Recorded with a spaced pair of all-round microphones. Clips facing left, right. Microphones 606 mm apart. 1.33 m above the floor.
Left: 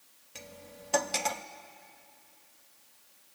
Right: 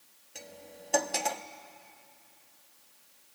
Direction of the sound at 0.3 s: 35° left (ahead or behind).